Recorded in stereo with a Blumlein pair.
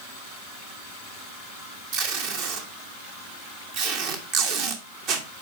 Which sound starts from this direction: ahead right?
Tape being pulled, at 1.9 s.